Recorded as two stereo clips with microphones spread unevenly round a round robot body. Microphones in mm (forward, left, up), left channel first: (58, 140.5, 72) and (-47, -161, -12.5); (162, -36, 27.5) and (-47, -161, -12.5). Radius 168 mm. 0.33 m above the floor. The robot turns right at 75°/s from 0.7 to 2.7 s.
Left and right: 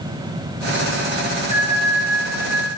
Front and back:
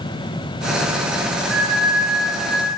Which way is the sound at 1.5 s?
Straight ahead.